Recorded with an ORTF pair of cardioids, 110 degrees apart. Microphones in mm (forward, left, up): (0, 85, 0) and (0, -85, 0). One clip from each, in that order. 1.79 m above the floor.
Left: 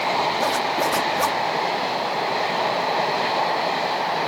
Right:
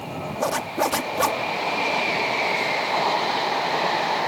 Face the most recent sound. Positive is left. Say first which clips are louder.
# left 3 dB
turn(degrees=-15)